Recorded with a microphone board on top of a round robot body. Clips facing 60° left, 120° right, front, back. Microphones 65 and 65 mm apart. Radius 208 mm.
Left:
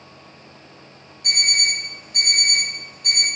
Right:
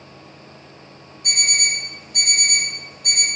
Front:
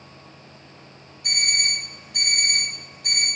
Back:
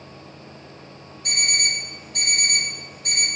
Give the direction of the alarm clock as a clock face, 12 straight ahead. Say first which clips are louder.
Even, back 1 dB; 12 o'clock.